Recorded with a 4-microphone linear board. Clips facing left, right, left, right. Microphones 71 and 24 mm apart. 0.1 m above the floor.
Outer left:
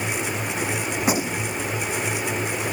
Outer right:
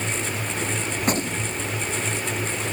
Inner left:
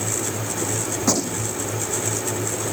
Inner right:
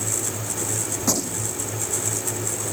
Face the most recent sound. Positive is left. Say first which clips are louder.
# outer left 1 dB, inner left 3 dB
turn(degrees=10)  # may be behind; listen again after turning